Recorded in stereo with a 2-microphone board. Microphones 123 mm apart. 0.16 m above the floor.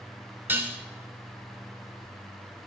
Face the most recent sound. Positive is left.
turn(degrees=-15)  # may be behind; listen again after turning